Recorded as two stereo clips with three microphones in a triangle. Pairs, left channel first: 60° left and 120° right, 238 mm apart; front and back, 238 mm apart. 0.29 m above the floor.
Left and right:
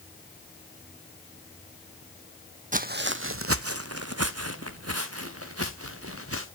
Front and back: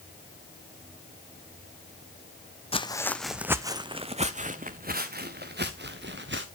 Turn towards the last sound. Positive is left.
turn(degrees=-140)